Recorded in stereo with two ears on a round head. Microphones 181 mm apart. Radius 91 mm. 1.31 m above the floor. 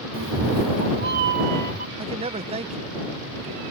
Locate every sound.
0.1 s a cat meowing: 60° right (ahead or behind); by 1.9 s 40° right (ahead or behind)
2.0 s a man speaking: 30° right (ahead or behind)